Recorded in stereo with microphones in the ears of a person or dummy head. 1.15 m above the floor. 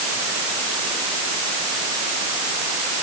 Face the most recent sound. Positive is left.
No sound to turn to.